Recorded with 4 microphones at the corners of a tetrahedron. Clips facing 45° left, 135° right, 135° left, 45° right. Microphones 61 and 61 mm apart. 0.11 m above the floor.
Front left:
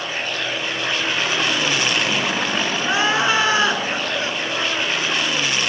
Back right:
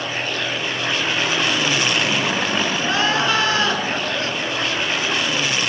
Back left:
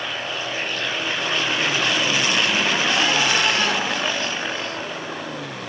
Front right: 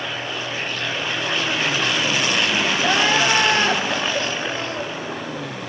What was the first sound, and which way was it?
Crying, 15° right.